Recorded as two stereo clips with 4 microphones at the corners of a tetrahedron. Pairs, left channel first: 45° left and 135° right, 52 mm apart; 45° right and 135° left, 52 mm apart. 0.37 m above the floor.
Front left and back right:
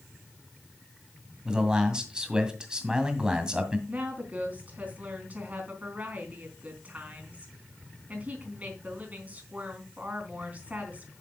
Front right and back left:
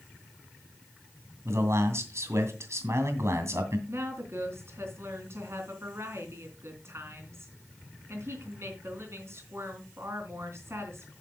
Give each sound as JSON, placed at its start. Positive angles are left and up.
{"t": 1.4, "sound": "a man speaking", "azimuth_deg": 150, "distance_m": 2.0}
{"t": 3.9, "sound": "a woman speaking", "azimuth_deg": 165, "distance_m": 3.5}